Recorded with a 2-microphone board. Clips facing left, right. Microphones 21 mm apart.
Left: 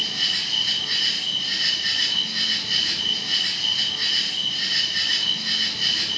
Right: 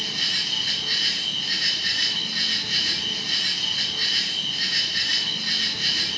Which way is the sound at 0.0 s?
5° left (ahead or behind).